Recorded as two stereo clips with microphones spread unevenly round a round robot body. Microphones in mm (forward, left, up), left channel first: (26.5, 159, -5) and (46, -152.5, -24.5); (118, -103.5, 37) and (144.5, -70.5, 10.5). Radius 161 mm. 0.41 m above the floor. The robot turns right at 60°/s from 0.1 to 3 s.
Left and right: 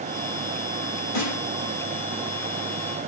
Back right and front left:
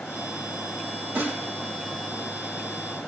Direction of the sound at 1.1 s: 100° left.